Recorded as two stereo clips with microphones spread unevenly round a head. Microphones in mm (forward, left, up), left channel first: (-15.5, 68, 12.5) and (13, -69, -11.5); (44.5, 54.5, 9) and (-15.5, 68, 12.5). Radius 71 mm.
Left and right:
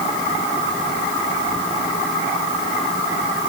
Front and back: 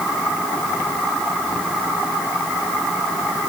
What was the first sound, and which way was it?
Only background noise.